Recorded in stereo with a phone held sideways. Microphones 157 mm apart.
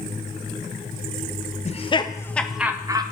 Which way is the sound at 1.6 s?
45° left (ahead or behind).